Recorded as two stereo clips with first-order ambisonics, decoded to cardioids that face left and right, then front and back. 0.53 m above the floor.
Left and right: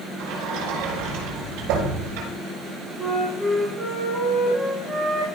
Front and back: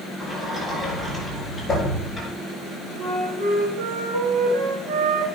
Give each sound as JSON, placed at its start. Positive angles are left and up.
{"t": 0.2, "sound": "a sliding door", "azimuth_deg": -85, "distance_m": 6.5}
{"t": 3.0, "sound": "a flute", "azimuth_deg": -170, "distance_m": 5.0}